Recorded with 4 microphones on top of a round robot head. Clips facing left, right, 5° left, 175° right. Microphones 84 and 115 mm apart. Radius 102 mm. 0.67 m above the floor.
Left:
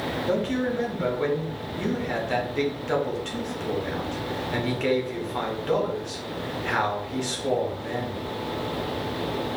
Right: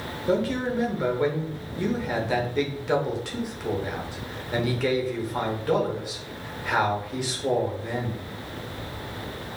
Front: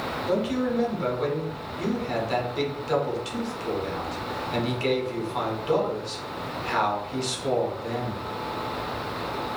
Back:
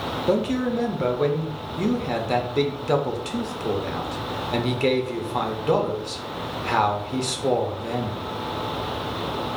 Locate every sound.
0.3 s a man speaking: 170° right, 1.0 m